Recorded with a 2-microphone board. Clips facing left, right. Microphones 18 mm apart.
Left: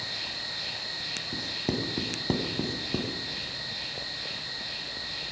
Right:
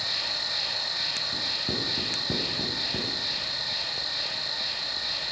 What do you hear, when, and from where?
0.0 s an insect: 85° right, 3 m
1.3 s writing: 45° left (ahead or behind), 1.4 m